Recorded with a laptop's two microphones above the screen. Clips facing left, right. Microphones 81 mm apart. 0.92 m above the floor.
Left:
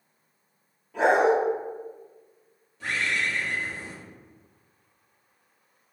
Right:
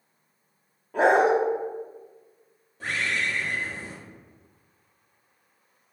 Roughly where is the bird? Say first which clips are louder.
Even; right.